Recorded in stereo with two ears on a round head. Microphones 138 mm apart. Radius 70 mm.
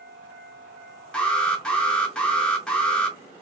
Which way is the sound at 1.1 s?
5° left (ahead or behind).